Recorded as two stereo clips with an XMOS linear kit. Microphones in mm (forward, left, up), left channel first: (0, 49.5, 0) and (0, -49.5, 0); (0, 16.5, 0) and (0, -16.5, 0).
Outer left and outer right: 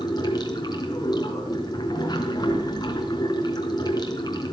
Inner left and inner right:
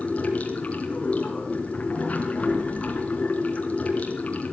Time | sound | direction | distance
0.0 | running water | 45° left (ahead or behind) | 4 m